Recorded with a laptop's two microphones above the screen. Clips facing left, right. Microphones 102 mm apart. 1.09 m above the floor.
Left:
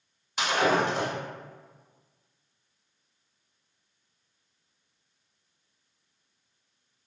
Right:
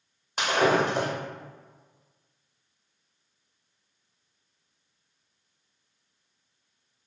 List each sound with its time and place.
0.4 s breaking glass: 45° right (ahead or behind), 1.0 m